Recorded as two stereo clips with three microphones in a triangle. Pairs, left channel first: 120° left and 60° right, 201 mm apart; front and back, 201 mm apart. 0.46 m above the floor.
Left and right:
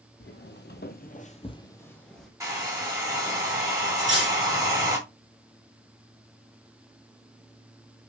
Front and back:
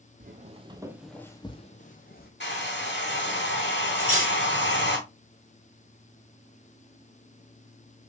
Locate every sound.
0.2 s footsteps: 145° left, 0.9 m; by 2.3 s 30° left, 1.1 m
2.4 s a hair dryer: 15° left, 2 m
4.0 s cutlery clinking: 135° left, 1.5 m